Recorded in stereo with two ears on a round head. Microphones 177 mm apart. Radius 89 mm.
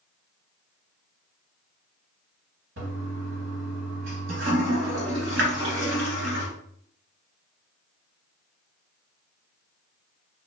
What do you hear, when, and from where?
2.8 s a toilet flushing: 60° right (ahead or behind), 1.5 m